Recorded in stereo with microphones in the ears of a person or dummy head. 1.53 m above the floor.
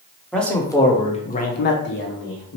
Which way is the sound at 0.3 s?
15° left (ahead or behind).